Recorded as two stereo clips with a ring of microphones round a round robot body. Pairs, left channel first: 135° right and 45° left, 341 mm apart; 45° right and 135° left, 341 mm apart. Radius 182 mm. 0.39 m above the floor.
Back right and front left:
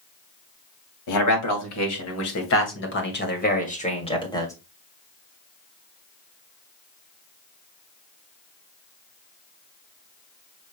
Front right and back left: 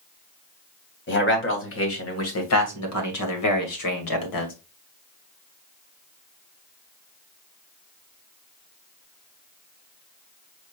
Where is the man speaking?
100° right, 2.5 m; by 4.5 s 55° right, 1.9 m.